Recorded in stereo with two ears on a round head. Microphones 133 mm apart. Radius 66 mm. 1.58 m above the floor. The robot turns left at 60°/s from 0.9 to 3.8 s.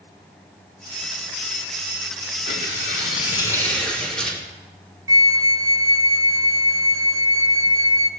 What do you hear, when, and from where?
2.5 s tearing paper: 90° left, 3.5 m; by 4.4 s 5° left, 3.5 m
5.1 s a flute: 25° right (ahead or behind), 0.6 m